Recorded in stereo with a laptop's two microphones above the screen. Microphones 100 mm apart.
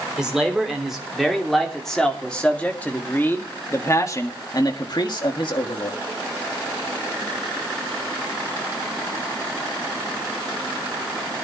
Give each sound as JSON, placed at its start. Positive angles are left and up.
{"t": 0.2, "sound": "a man speaking", "side_deg": -5, "distance_m": 3.0}